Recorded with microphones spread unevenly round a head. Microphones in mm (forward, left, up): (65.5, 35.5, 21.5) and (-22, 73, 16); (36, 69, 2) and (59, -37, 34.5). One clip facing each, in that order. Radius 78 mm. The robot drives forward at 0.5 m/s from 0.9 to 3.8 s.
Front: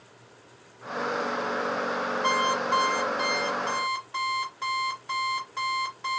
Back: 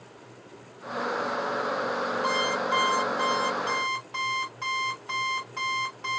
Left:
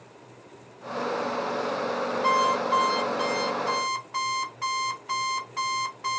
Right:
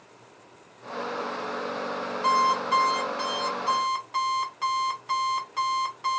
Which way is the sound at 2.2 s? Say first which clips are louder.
Front 4 dB, right 1 dB; 120° right.